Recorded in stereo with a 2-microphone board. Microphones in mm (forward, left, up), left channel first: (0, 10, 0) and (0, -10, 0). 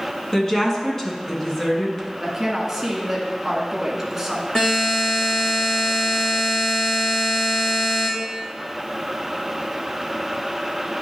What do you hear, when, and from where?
0.3 s a woman speaking: 25° left (ahead or behind), 2 m
2.2 s a woman speaking: 15° right (ahead or behind), 1.8 m
4.5 s a buzzer: 50° left (ahead or behind), 3 m